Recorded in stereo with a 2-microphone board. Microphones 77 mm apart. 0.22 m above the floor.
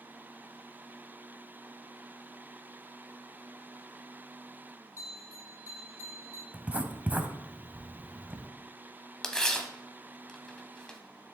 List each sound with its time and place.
5.0 s a bell: 30° right (ahead or behind), 2.5 m
6.5 s writing: 20° right (ahead or behind), 0.7 m
9.2 s tearing paper: 10° left (ahead or behind), 0.9 m